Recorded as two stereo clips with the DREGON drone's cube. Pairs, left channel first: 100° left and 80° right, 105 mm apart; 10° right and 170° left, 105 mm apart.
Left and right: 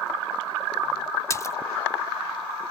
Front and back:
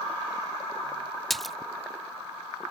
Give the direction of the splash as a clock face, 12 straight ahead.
9 o'clock.